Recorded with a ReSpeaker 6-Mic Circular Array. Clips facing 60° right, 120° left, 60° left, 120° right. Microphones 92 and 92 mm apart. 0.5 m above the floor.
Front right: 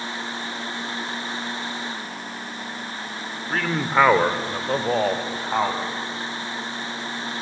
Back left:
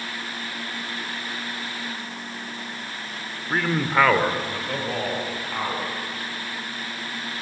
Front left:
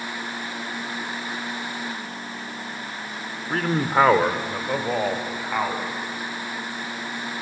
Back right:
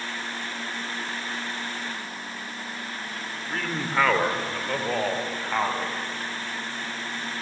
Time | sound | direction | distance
3.5 | a man speaking | 50° left | 1.5 m